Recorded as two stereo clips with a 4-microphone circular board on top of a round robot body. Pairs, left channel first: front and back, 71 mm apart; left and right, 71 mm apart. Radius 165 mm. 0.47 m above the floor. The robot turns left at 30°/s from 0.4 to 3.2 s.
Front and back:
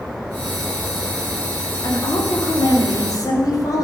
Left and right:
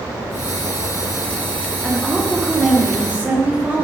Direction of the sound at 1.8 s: 20° left.